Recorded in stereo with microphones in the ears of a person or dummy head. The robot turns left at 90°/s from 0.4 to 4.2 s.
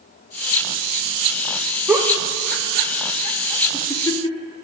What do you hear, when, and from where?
1.9 s a giggle: centre (ahead or behind), 0.6 m; by 4.6 s 25° left (ahead or behind), 0.6 m